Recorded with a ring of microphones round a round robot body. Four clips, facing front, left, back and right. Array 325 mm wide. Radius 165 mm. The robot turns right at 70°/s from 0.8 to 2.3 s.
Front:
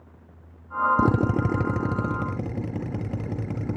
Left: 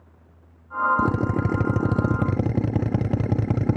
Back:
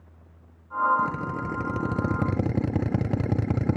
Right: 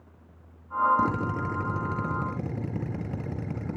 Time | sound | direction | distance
1.0 | a drill | 25° left | 0.9 m